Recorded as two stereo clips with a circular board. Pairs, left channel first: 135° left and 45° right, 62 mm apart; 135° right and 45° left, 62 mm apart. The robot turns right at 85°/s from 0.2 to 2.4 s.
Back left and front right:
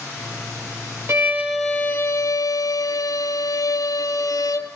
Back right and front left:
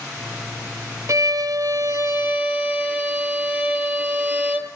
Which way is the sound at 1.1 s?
5° left.